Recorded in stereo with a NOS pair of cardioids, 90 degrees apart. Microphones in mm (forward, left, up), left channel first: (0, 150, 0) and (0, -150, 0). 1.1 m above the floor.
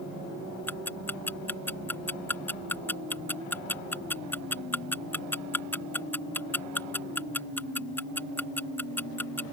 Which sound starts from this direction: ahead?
Ticking, at 0.7 s.